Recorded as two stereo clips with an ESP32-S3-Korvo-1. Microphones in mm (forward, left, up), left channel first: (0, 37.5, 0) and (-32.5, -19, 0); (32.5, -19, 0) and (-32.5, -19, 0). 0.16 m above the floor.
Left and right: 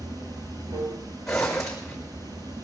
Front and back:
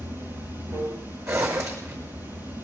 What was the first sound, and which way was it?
Running water, 125° right.